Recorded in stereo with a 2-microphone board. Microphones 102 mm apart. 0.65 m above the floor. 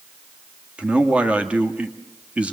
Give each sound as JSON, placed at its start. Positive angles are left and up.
{"t": 0.8, "sound": "a man speaking", "side_deg": -10, "distance_m": 1.3}